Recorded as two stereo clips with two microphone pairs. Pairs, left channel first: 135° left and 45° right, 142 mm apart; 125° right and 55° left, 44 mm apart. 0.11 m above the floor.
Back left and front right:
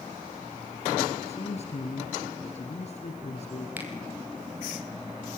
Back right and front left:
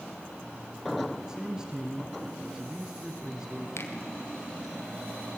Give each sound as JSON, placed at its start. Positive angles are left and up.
{"t": 1.3, "sound": "a man speaking", "azimuth_deg": 125, "distance_m": 1.9}
{"t": 3.8, "sound": "a finger snap", "azimuth_deg": -120, "distance_m": 2.5}